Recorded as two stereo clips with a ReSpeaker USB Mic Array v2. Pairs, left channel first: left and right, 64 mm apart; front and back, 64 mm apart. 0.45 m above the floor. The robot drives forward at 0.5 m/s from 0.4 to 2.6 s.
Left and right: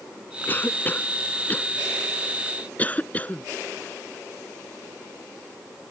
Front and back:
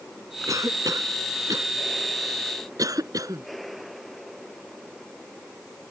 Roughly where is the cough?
Behind left.